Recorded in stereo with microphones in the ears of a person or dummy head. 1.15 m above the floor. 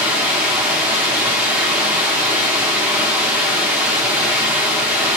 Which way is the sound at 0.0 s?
5° right (ahead or behind).